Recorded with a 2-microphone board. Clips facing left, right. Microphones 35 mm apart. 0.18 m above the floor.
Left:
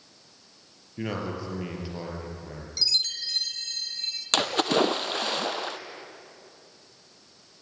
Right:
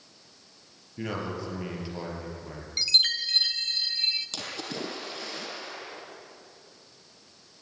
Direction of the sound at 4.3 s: 70° left (ahead or behind).